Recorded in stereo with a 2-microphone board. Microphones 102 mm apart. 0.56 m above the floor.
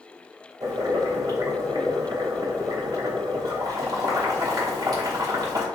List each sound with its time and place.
0.6 s boiling: 40° right (ahead or behind), 2.0 m